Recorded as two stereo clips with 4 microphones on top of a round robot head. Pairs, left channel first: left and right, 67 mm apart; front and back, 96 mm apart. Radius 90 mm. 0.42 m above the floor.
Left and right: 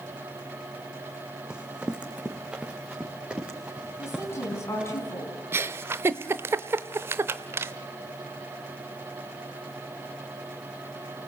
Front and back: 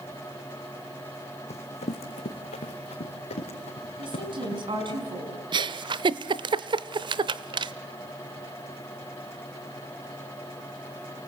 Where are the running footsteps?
10° right, 1.7 m; by 5.0 s 15° right, 5.5 m.